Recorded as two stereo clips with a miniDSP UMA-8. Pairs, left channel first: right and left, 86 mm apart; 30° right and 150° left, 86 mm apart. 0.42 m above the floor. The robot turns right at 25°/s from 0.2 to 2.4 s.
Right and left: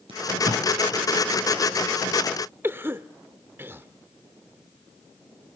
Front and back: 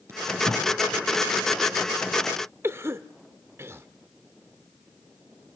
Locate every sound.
0.1 s tape being pulled: 90° left, 4.5 m; by 0.7 s 100° left, 4.5 m
2.6 s a cough: 130° left, 0.9 m